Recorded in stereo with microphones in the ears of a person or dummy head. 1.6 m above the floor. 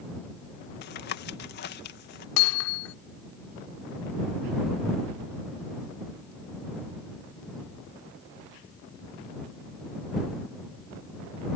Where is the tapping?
55° left (ahead or behind).